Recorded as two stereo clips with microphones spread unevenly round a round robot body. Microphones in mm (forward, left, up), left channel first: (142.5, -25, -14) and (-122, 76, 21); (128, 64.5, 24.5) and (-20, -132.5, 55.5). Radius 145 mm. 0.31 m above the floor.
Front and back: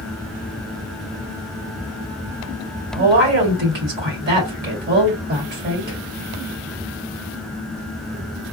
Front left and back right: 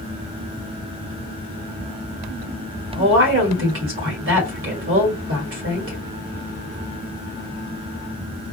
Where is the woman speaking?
150° right, 2.0 m.